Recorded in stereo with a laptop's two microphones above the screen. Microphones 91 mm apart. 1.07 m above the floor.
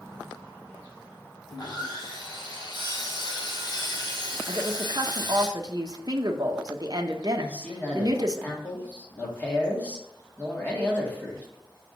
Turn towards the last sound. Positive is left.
turn(degrees=15)  # may be behind; listen again after turning